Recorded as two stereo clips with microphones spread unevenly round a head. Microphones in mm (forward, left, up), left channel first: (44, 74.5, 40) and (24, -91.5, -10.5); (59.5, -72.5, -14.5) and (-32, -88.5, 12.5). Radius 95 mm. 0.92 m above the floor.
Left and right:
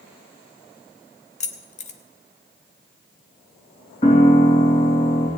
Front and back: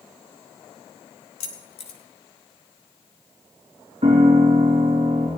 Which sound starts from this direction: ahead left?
Keys jangling, at 1.4 s.